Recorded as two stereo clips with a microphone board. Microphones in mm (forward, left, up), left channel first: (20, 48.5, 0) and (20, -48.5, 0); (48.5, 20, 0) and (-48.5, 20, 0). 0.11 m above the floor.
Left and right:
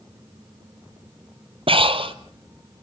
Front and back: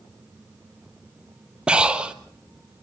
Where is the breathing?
100° right, 1.1 m.